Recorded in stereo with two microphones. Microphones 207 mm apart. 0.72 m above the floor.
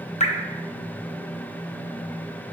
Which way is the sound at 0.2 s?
35° left (ahead or behind).